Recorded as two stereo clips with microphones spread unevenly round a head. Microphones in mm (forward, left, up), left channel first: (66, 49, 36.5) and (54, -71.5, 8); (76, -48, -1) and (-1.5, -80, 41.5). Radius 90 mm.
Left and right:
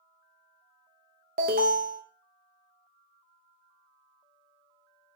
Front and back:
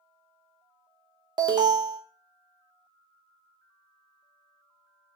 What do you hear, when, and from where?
1.4 s an alarm: 130° right, 0.8 m